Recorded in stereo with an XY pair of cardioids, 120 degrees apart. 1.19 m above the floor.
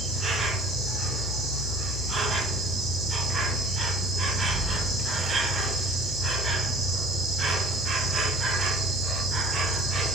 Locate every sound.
0.0 s an insect: 40° right, 1.3 m